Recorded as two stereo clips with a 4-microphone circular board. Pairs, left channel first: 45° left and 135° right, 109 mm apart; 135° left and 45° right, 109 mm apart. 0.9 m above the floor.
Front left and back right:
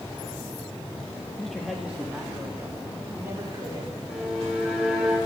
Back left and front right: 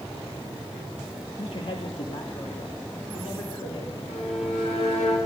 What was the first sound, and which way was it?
A man speaking, 130° left.